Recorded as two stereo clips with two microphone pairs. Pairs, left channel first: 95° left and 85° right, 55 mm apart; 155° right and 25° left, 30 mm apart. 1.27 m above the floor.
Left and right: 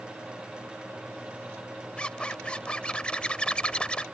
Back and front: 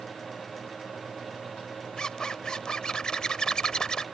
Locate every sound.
2.0 s a zipper: 155° left